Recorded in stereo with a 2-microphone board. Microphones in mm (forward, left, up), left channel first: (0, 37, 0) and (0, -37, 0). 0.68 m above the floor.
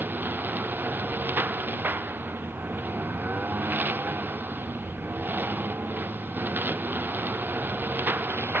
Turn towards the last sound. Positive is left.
turn(degrees=-25)  # may be behind; listen again after turning